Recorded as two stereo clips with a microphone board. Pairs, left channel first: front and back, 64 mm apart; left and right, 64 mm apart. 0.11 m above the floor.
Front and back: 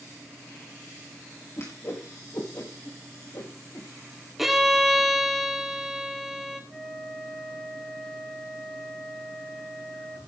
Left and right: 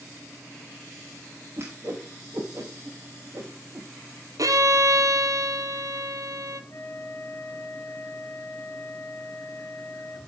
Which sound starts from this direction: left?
A flute, at 6.7 s.